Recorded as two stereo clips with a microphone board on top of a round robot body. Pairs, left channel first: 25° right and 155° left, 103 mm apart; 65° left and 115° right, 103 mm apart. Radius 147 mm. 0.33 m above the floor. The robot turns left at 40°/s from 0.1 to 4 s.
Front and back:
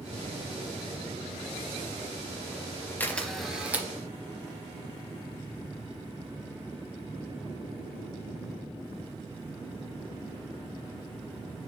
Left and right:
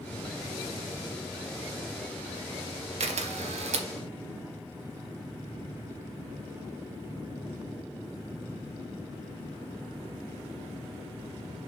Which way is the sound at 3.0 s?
95° right.